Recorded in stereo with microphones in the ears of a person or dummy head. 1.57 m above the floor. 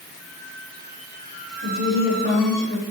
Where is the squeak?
5° right (ahead or behind), 1.2 m.